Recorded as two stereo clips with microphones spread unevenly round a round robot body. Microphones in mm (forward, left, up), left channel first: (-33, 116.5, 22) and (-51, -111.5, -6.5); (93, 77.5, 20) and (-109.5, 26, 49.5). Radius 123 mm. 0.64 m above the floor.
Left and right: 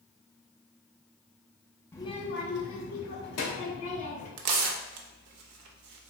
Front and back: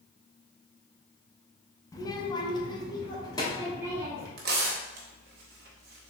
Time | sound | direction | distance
1.9 | a child speaking | straight ahead | 0.5 m
4.4 | tearing paper | 115° right | 0.6 m